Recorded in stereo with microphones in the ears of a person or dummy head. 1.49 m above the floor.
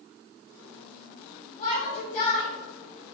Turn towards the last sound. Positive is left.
turn(degrees=35)  # may be behind; listen again after turning